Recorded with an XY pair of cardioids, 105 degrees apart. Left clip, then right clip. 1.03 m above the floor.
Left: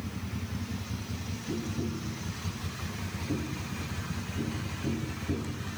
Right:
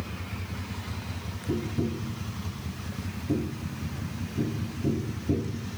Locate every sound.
1.5 s tapping: 35° right, 1.1 m